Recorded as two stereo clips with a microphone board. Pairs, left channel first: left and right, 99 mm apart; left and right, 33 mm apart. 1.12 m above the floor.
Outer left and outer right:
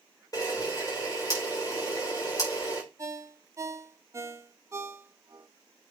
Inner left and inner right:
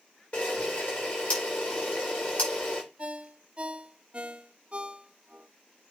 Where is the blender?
I don't hear a blender.